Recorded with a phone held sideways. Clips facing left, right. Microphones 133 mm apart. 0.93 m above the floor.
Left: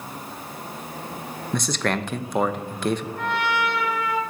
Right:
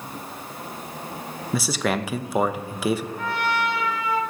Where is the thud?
I don't hear a thud.